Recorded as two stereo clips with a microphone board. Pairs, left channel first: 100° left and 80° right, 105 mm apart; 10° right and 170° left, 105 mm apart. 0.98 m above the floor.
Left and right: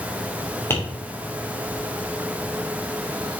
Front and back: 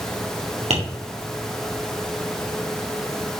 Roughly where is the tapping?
Behind.